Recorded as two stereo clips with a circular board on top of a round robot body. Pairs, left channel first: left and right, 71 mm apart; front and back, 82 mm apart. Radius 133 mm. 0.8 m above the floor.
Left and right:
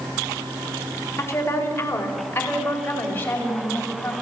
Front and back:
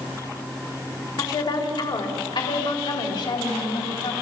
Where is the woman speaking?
35° left, 4 m; by 4.1 s 20° left, 6.5 m.